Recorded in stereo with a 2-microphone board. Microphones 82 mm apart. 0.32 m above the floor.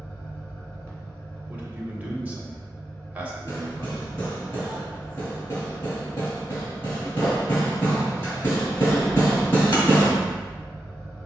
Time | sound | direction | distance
0.0 | an engine running | 15° left (ahead or behind) | 1.8 m
1.5 | a man speaking | 20° right (ahead or behind) | 1.0 m
3.5 | hammering | 30° left (ahead or behind) | 1.9 m